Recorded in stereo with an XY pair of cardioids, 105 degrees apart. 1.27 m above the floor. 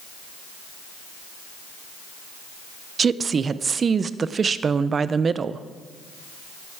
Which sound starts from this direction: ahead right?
A woman speaking, at 3.0 s.